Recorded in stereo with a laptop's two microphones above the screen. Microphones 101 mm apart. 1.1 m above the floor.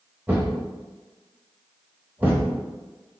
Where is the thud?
15° right (ahead or behind), 0.7 m.